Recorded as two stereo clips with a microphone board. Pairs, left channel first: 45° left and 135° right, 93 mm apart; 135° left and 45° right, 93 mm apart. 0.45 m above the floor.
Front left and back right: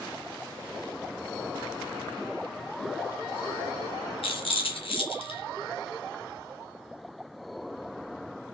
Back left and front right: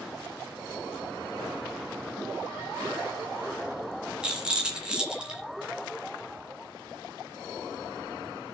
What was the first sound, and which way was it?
A rattle, 35° left.